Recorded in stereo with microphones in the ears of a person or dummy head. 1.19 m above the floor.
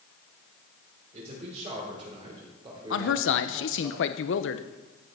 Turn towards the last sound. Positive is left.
turn(degrees=65)  # may be behind; listen again after turning